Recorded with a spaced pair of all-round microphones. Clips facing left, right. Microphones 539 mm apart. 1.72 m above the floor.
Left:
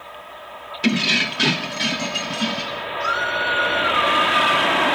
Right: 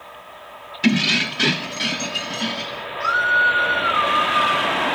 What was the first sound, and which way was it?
Keys jangling, 20° right (ahead or behind).